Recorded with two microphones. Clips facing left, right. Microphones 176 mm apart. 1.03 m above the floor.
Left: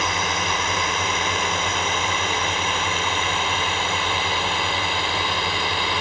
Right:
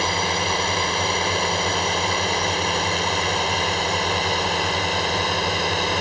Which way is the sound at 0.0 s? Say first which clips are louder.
Right 2 dB; 30° right (ahead or behind).